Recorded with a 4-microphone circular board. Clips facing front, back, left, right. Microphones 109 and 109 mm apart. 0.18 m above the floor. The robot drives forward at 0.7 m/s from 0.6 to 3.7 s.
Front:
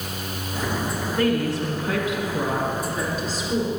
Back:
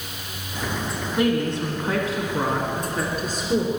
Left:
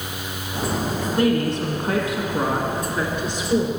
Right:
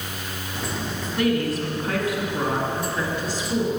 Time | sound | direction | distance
1.2 | a woman speaking | 115° left | 1.6 m